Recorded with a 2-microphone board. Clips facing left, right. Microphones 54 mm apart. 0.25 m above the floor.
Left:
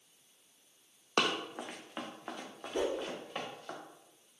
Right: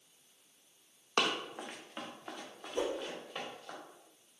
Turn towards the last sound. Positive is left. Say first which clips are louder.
# left 2 dB
turn(degrees=70)  # may be behind; listen again after turning